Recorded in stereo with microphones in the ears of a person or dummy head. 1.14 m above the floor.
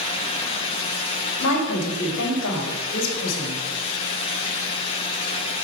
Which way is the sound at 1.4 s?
80° left.